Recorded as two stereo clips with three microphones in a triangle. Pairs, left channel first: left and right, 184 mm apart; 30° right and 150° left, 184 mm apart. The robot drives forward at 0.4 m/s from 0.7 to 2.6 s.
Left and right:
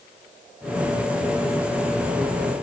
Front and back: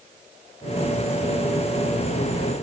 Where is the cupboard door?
No cupboard door in this recording.